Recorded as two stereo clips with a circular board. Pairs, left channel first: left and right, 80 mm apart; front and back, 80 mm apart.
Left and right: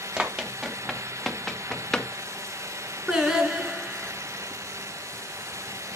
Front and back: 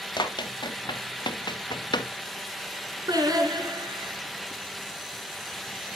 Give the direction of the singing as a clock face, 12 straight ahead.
6 o'clock.